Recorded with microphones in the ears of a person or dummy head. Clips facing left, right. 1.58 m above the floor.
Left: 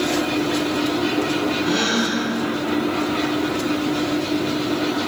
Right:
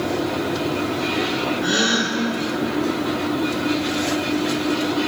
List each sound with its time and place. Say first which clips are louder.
1.6 s a gasp: left 1 dB; 15° right (ahead or behind), 1.8 m